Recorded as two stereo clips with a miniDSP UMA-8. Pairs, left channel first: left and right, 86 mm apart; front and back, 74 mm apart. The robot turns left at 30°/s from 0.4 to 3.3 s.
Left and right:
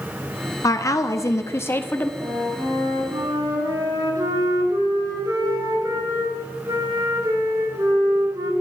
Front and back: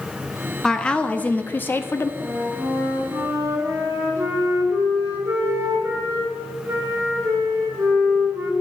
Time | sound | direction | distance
0.6 | a woman speaking | 75° left | 0.7 m
2.2 | a flute | 95° right | 2 m